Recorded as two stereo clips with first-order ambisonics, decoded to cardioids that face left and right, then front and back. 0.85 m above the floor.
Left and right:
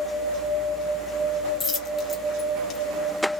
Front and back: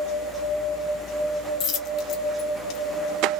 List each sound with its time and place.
1.6 s a dropped coin: 30° left, 1.0 m